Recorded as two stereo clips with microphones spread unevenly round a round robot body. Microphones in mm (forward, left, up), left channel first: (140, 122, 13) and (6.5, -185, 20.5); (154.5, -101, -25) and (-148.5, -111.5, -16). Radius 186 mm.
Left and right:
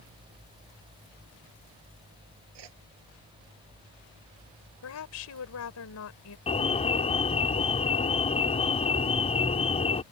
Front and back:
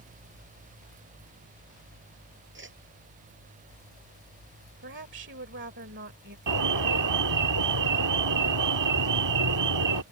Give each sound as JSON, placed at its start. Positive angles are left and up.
{"t": 2.5, "sound": "a whoosh", "azimuth_deg": -125}
{"t": 4.8, "sound": "a woman speaking", "azimuth_deg": 120}
{"t": 6.5, "sound": "an alarm", "azimuth_deg": 140}